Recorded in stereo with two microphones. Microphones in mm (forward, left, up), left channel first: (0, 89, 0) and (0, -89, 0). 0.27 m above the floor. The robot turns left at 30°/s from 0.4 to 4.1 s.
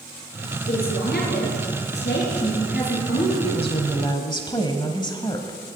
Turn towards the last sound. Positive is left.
turn(degrees=25)  # may be behind; listen again after turning